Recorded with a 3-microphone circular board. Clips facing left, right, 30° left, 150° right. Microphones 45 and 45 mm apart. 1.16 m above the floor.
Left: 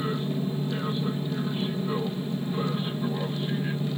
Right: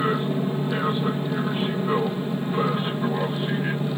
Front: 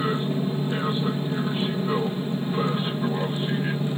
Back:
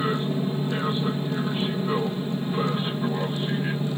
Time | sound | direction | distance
0.0 | an aircraft | 60° right | ?